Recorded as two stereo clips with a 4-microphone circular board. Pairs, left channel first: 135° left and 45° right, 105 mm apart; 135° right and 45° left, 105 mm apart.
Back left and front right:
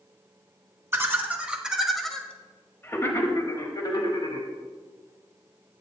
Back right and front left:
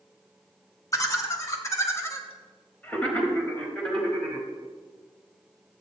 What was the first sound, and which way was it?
Laughter, 100° right.